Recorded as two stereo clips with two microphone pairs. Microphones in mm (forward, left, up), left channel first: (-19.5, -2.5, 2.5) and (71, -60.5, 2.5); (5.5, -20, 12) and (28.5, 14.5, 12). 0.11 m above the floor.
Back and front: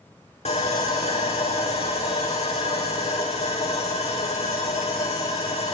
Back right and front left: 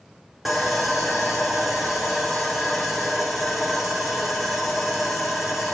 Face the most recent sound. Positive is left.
turn(degrees=140)